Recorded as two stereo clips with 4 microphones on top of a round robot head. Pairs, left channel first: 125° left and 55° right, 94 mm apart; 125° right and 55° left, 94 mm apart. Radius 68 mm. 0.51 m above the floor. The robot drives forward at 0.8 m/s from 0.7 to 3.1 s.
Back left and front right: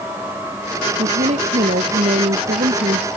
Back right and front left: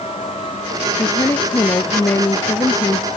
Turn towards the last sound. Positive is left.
turn(degrees=-65)